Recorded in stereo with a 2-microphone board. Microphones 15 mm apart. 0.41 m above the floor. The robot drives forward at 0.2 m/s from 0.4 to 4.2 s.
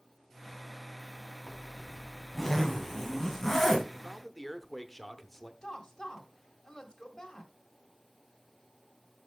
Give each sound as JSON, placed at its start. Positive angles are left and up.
{"t": 1.5, "sound": "a zipper", "side_deg": 35, "distance_m": 2.0}
{"t": 3.9, "sound": "a man speaking", "side_deg": 10, "distance_m": 0.8}
{"t": 5.6, "sound": "a woman speaking", "side_deg": 60, "distance_m": 1.9}